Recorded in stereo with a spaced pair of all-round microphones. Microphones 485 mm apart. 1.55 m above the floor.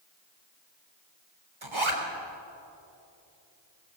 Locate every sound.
1.6 s a zipper: 70° right (ahead or behind), 3 m